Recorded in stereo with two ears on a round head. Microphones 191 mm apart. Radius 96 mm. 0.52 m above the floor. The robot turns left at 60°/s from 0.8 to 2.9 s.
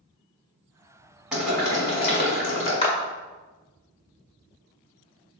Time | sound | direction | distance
1.3 | boiling | 175° right | 1.6 m
2.8 | a clap | 25° left (ahead or behind) | 0.6 m